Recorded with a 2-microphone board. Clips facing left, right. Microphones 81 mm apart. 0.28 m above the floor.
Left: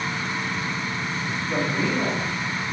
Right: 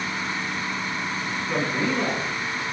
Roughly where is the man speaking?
Right.